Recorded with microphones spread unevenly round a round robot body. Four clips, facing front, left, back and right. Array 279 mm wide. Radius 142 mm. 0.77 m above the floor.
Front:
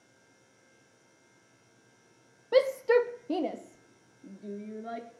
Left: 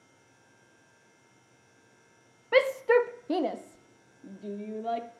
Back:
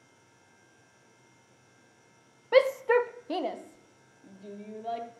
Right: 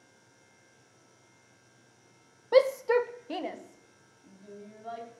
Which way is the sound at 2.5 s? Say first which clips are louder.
Even, back 1 dB; 5° left.